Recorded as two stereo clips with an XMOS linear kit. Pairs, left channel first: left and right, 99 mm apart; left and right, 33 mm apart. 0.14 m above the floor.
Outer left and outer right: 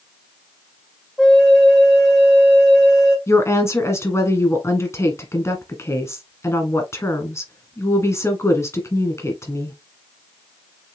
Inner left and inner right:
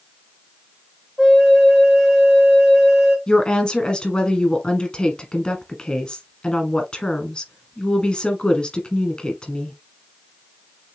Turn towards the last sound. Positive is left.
turn(degrees=30)  # may be behind; listen again after turning